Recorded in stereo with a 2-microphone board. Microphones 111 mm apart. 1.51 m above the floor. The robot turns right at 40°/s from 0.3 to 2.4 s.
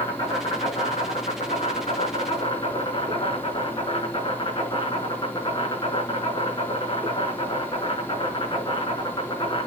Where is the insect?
50° left, 6 m; by 9.7 s 135° left, 6 m.